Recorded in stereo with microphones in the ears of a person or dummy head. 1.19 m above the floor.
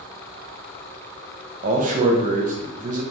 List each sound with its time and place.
1.6 s a man speaking: 40° right (ahead or behind), 0.7 m